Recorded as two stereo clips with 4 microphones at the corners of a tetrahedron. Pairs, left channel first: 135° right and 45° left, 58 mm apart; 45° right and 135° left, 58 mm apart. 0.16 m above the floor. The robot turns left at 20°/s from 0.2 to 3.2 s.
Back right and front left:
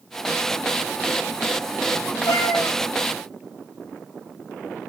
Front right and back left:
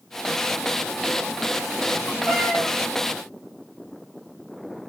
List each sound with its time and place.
2.3 s a cat meowing: 130° right, 3 m; by 2.8 s 140° right, 3 m